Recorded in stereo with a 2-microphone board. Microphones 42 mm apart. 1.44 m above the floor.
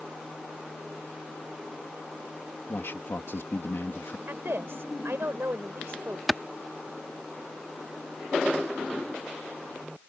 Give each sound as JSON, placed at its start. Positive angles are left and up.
{"t": 2.7, "sound": "a man speaking", "side_deg": 65}
{"t": 4.3, "sound": "a woman speaking", "side_deg": -65}
{"t": 6.3, "sound": "a clap", "side_deg": 0}